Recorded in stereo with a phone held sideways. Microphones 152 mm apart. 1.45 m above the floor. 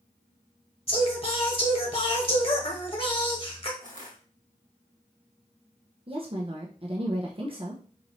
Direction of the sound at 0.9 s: 40° left (ahead or behind).